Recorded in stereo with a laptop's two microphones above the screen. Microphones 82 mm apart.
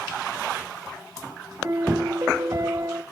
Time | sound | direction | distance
1.6 | a piano | 35° right (ahead or behind) | 0.9 m